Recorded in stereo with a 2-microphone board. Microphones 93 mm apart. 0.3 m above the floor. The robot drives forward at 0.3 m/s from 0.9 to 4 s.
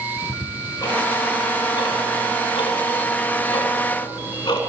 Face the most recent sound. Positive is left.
turn(degrees=60)  # may be behind; listen again after turning